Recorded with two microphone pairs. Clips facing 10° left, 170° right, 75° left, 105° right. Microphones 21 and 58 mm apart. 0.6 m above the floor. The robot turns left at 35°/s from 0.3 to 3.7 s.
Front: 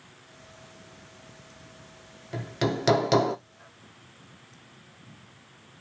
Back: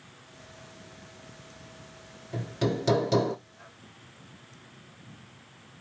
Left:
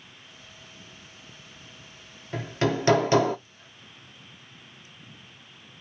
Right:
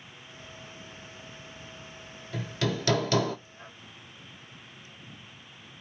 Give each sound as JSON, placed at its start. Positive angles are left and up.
{"t": 2.3, "sound": "hammering", "azimuth_deg": 50, "distance_m": 1.0}